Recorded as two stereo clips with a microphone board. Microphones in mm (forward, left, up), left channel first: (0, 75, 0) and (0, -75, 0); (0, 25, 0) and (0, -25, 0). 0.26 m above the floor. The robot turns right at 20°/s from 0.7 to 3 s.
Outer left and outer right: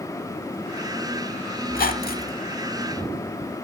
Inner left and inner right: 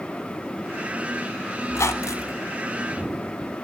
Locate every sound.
1.7 s a squeak: 65° left (ahead or behind), 0.6 m; by 2.4 s 70° left (ahead or behind), 0.6 m